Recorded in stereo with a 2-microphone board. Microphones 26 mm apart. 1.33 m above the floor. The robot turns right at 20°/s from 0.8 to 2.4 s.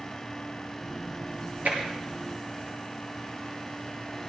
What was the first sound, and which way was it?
Tapping, 75° right (ahead or behind).